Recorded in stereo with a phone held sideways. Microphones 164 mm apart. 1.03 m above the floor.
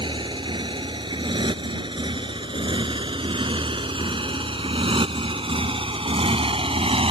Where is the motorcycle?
30° right (ahead or behind); by 7.1 s 35° right (ahead or behind).